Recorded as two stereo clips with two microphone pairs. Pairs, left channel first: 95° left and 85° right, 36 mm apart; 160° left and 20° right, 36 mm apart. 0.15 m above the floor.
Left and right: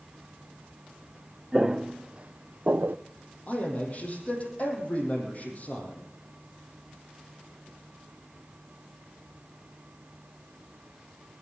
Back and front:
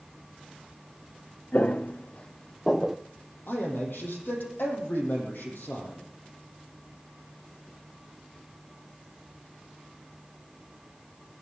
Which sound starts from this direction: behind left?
A man speaking, at 3.5 s.